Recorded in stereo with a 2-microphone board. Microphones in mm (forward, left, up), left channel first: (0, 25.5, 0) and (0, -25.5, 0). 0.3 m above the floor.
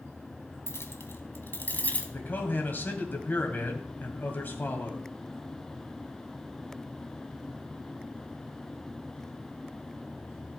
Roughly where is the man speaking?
Left.